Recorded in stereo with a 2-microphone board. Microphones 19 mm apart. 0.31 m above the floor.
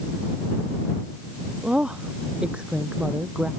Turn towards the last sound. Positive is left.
turn(degrees=-75)  # may be behind; listen again after turning